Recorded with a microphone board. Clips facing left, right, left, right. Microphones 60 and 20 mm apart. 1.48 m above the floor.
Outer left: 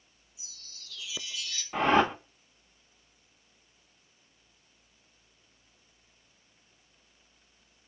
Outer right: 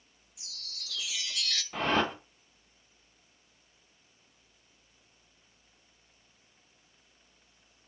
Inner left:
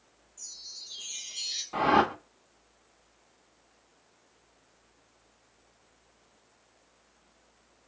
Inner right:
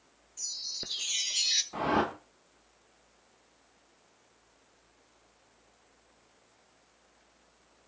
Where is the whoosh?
15° left (ahead or behind), 0.8 m.